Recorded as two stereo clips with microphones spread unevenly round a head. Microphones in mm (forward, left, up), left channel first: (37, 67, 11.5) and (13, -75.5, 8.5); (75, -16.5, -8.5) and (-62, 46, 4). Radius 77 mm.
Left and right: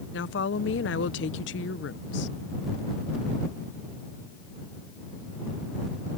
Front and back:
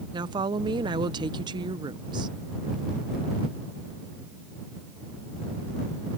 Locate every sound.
0.1 s a woman speaking: 95° left